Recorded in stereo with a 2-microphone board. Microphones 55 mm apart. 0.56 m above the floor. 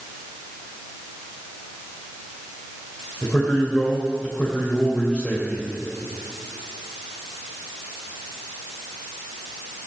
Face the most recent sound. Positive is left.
turn(degrees=20)  # may be behind; listen again after turning